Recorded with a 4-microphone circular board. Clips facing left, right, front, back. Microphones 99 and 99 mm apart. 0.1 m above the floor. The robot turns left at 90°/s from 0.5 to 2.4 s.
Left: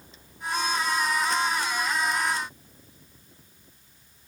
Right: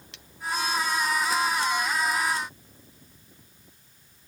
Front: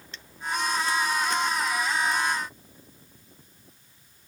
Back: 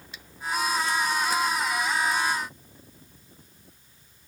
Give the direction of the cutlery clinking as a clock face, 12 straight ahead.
3 o'clock.